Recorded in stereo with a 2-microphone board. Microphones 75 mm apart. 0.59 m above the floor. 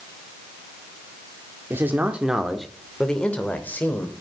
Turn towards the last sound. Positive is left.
turn(degrees=30)  # may be behind; listen again after turning